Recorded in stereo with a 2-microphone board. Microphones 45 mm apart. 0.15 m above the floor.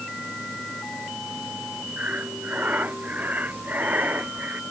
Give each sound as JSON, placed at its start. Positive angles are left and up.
{"t": 2.0, "sound": "breathing", "side_deg": -40}